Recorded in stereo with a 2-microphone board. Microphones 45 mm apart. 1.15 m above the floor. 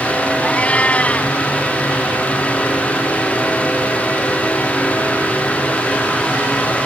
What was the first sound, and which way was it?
A cat meowing, 30° left (ahead or behind).